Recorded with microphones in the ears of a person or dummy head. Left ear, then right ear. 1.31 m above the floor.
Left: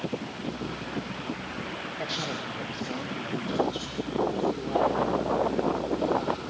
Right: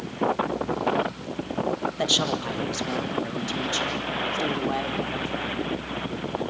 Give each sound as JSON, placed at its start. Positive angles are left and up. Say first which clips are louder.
{"t": 2.0, "sound": "a man speaking", "louder": "right 9 dB", "side_deg": -45, "distance_m": 1.7}